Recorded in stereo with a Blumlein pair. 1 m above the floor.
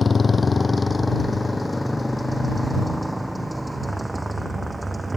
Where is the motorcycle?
15° left; by 5.2 s 10° right.